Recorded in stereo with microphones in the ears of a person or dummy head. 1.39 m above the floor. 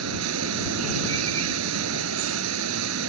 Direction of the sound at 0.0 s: 85° right.